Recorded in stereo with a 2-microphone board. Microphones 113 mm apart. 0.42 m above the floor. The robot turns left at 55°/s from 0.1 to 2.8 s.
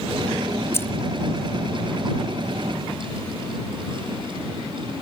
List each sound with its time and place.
0.7 s keys jangling: 25° left (ahead or behind); by 0.9 s 15° left (ahead or behind)